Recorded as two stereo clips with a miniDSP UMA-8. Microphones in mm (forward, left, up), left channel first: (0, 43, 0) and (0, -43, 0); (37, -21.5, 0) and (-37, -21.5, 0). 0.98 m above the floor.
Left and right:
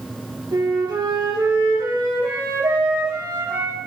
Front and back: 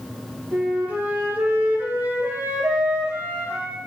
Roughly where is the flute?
Behind right.